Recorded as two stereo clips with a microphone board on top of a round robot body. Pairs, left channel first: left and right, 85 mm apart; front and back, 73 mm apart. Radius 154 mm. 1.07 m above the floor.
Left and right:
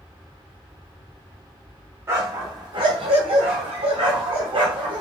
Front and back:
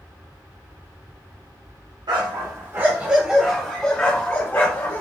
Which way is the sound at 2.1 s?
150° right.